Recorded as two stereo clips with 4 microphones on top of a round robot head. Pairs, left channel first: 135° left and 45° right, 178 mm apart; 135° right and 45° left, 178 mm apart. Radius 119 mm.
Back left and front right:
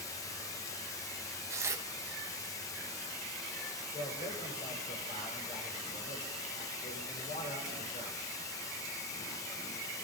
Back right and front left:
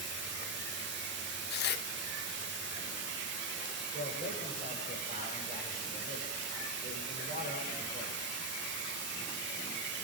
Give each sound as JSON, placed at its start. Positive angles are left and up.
{"t": 0.0, "sound": "running water", "azimuth_deg": 65, "distance_m": 0.8}
{"t": 1.5, "sound": "tearing paper", "azimuth_deg": -120, "distance_m": 0.9}
{"t": 3.9, "sound": "a man speaking", "azimuth_deg": 85, "distance_m": 7.5}